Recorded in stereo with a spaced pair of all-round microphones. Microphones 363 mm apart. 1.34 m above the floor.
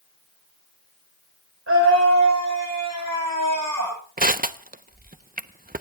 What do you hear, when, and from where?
1.7 s a scream: 40° right (ahead or behind), 4.5 m; by 4.0 s 55° right (ahead or behind), 5 m
4.2 s crushing: 25° right (ahead or behind), 0.7 m